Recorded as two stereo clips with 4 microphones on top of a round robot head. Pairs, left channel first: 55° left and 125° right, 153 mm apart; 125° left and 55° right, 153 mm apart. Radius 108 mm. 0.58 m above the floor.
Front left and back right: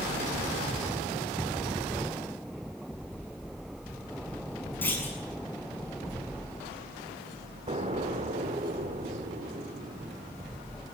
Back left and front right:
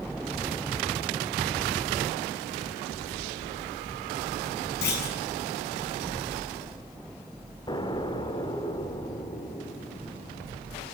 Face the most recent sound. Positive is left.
turn(degrees=-175)